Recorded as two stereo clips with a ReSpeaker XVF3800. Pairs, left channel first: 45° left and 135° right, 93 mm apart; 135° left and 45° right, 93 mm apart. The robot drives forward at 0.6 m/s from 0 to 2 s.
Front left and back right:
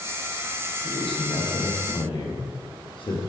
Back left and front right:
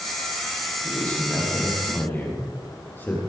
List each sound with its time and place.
0.8 s a man speaking: 60° left, 4.5 m; by 3.2 s 70° left, 4.5 m